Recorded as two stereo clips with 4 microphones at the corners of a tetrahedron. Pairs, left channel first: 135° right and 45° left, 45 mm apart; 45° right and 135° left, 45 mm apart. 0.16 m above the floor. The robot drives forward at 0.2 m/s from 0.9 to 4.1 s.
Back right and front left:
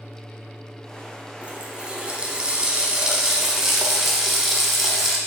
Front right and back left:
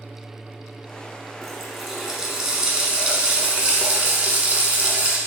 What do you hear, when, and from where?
1.4 s a running tap: 50° left, 0.8 m; by 5.2 s 130° left, 0.8 m